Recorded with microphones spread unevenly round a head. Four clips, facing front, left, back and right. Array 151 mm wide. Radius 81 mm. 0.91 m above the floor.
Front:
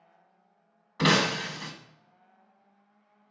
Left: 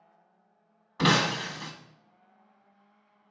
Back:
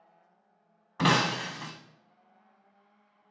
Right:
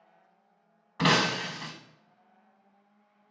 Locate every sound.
1.0 s breaking glass: 165° right, 0.8 m